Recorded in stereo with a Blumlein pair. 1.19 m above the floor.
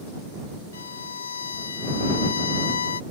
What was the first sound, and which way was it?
A violin, 70° left.